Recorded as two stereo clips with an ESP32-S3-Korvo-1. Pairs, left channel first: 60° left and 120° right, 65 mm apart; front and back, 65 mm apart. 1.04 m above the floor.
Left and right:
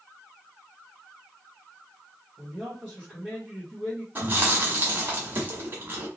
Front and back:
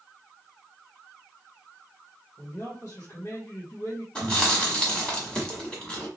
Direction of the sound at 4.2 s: 70° right.